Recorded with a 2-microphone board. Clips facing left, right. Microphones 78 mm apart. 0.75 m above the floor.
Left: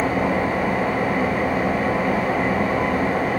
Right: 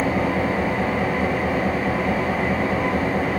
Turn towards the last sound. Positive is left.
turn(degrees=55)  # may be behind; listen again after turning